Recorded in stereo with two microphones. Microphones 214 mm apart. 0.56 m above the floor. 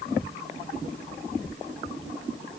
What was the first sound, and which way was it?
Only background noise.